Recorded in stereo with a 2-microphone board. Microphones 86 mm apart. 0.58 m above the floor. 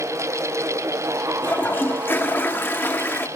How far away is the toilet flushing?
About 1.1 m.